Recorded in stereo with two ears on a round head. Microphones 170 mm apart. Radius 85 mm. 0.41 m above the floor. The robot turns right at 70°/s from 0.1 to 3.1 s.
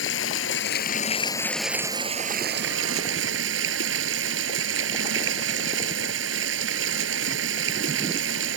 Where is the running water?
75° left; by 8.6 s 75° right.